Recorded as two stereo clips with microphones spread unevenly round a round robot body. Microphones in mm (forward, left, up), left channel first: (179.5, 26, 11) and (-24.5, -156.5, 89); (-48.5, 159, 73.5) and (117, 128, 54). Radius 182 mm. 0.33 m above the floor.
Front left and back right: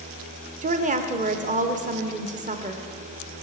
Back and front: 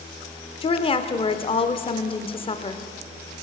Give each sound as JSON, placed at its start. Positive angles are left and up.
{"t": 0.6, "sound": "a woman speaking", "azimuth_deg": 155, "distance_m": 0.8}